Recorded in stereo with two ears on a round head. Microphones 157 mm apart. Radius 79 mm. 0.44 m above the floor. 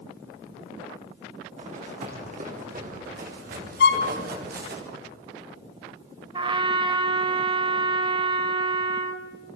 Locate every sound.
1.6 s running footsteps: 45° right (ahead or behind), 7.5 m; by 4.8 s 60° right (ahead or behind), 8 m
3.8 s a violin: 65° left (ahead or behind), 2.5 m
6.3 s a trumpet: 30° right (ahead or behind), 1.9 m